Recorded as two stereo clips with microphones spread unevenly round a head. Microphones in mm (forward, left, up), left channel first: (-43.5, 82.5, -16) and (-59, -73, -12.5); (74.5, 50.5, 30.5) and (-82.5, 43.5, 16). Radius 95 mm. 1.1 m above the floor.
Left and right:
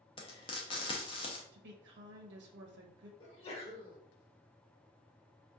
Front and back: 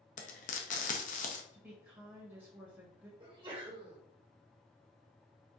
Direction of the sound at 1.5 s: 100° right.